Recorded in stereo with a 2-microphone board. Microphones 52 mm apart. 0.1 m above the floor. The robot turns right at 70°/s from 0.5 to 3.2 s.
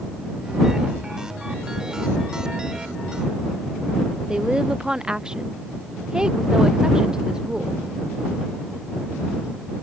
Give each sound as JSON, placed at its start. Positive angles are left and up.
{"t": 4.3, "sound": "a woman speaking", "side_deg": -15}